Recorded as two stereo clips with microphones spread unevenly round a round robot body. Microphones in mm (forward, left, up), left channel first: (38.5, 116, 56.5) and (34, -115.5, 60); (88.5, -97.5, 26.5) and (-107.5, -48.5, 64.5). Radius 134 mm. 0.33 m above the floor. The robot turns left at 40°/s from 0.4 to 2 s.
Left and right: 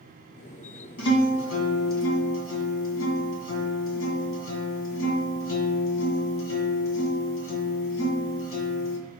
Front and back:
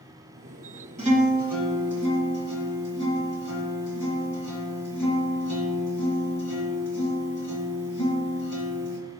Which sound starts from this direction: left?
A guitar, at 1.0 s.